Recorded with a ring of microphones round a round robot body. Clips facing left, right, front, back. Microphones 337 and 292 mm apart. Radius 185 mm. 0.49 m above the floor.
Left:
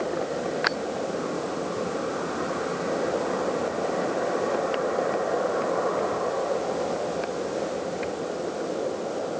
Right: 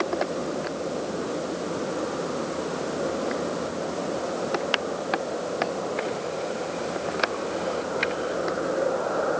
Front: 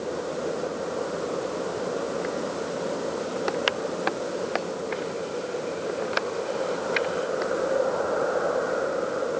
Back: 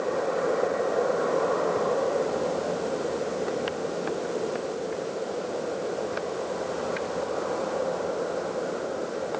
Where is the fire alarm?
No fire alarm in this recording.